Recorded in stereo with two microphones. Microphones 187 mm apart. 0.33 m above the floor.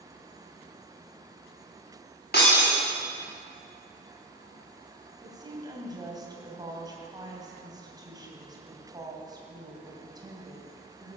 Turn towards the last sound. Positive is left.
turn(degrees=-20)  # may be behind; listen again after turning